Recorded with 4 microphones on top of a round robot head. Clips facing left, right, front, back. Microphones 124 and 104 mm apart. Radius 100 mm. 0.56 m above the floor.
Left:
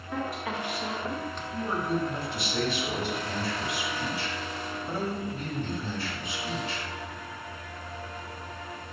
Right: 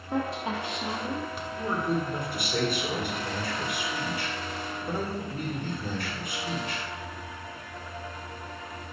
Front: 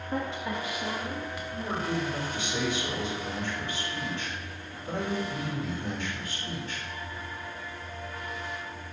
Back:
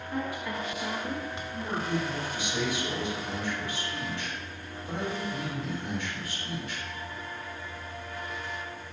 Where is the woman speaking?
45° right, 1.1 m; by 1.4 s 170° right, 0.9 m.